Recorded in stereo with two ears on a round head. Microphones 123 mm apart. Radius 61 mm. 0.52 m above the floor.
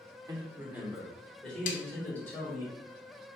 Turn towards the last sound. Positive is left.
turn(degrees=60)  # may be behind; listen again after turning